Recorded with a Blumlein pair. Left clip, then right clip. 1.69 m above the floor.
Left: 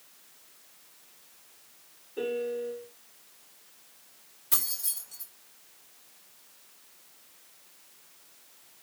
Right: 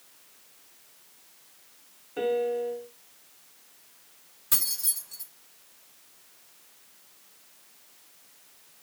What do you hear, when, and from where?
2.2 s a piano: 40° right, 1.7 m
4.5 s keys jangling: 15° right, 4 m